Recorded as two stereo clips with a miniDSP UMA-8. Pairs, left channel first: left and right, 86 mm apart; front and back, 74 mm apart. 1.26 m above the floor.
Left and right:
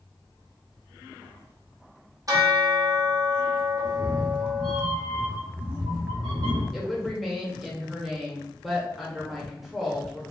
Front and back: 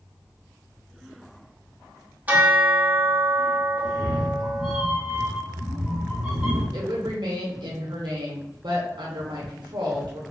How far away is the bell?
About 0.9 m.